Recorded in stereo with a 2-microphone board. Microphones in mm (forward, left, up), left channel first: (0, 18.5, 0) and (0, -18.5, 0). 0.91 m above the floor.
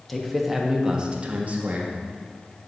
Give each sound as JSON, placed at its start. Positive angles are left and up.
{"t": 0.1, "sound": "a man speaking", "side_deg": 5, "distance_m": 1.1}